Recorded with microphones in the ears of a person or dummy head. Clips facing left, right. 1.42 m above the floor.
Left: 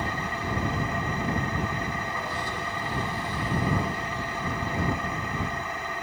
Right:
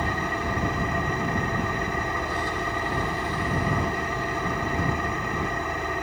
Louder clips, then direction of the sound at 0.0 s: Right 3 dB; 50° right (ahead or behind).